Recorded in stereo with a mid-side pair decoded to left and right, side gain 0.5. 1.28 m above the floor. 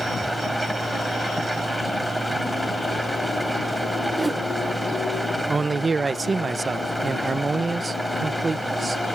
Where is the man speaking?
25° right.